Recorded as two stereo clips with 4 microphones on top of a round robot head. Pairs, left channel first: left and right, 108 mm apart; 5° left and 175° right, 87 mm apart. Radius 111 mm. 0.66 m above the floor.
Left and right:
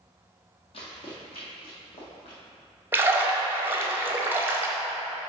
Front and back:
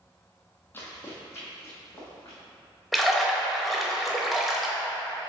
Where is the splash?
95° right, 0.9 m.